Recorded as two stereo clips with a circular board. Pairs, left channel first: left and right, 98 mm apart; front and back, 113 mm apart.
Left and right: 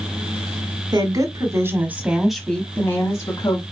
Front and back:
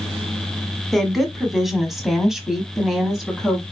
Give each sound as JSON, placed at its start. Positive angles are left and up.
{"t": 0.9, "sound": "a woman speaking", "azimuth_deg": -90, "distance_m": 1.4}